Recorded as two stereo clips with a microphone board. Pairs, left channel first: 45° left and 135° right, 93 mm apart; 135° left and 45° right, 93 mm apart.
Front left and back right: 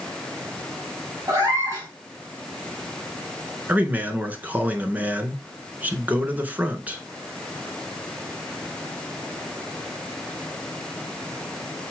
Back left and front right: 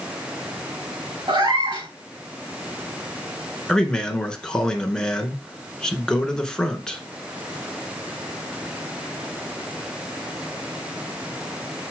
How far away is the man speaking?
About 1.2 m.